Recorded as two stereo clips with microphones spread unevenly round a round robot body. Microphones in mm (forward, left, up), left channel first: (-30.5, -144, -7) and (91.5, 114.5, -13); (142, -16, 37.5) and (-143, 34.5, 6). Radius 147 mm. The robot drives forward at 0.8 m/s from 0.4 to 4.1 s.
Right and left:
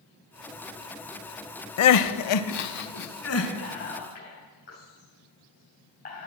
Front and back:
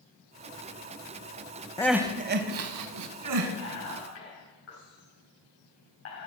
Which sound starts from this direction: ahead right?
Whispering, at 3.6 s.